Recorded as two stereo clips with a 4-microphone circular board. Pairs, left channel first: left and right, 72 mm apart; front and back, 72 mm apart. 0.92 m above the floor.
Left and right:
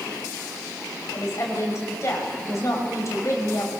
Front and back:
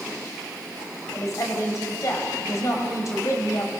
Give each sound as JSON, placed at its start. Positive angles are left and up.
{"t": 1.1, "sound": "a woman speaking", "azimuth_deg": 45, "distance_m": 5.0}